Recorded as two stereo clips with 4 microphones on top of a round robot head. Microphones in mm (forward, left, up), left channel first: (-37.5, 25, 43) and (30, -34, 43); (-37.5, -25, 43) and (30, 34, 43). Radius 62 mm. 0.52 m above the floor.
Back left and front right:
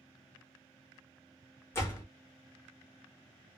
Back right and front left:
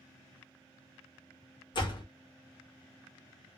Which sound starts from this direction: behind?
A door slam, at 1.7 s.